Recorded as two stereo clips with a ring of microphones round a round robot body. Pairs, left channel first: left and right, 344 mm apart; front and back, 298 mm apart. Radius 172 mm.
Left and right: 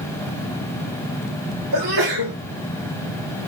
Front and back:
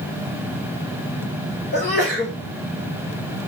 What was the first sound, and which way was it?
A sneeze, 65° right.